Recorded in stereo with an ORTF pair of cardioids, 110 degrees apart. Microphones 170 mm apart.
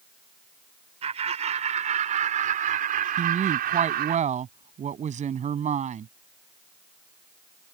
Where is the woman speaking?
45° right.